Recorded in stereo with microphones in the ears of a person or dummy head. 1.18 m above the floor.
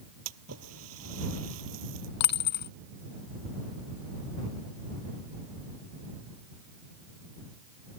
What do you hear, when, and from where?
0.2 s a splash: 85° right
2.2 s a dropped coin: 50° left (ahead or behind)